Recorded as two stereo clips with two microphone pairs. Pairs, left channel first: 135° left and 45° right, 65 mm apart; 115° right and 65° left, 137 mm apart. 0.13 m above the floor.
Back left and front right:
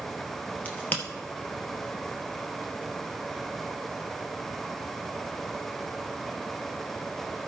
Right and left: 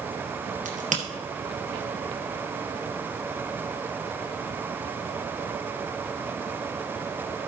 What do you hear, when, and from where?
0.7 s a crack: 75° left, 2 m